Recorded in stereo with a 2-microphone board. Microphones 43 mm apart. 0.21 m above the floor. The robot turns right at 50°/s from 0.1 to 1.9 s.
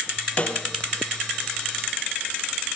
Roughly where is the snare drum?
Left.